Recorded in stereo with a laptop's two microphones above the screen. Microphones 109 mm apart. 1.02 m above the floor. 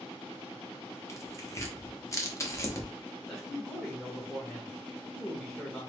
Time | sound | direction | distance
1.1 | tearing paper | 25° left (ahead or behind) | 1.1 m
3.3 | a man speaking | 5° left (ahead or behind) | 1.3 m